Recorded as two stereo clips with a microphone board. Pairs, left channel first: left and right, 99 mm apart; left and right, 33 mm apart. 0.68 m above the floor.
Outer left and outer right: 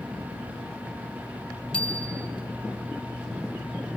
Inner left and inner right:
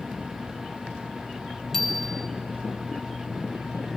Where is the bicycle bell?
10° left (ahead or behind), 2.5 m.